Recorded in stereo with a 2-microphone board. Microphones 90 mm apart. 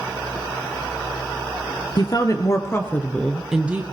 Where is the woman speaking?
45° left (ahead or behind), 1.8 m; by 3.8 s 20° right (ahead or behind), 1.1 m.